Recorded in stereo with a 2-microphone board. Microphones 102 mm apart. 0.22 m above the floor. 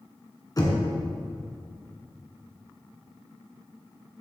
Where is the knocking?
40° left (ahead or behind), 2.0 m.